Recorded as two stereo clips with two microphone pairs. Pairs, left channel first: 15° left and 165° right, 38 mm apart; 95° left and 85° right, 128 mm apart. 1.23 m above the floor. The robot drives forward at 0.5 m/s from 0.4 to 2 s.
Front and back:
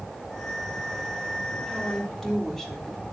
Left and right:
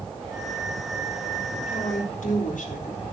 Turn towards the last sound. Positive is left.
turn(degrees=100)